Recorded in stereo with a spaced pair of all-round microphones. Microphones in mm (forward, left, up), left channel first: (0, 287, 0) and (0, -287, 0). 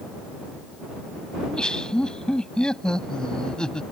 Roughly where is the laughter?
Centre.